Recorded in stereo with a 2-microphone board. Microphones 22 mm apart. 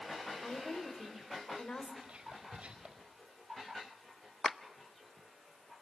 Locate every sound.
0.4 s a woman speaking: 55° left (ahead or behind), 3.5 m
2.0 s whispering: 80° right, 4.5 m
4.4 s a clap: 15° left (ahead or behind), 0.8 m